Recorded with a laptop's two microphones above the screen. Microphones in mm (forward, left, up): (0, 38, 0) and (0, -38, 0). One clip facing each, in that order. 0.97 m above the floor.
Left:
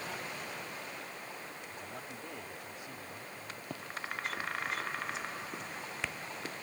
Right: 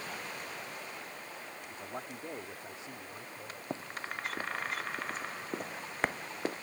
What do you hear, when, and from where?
1.7 s a man speaking: 35° right (ahead or behind); by 3.6 s 25° right (ahead or behind)
3.7 s running footsteps: 30° right (ahead or behind); by 6.5 s 50° right (ahead or behind)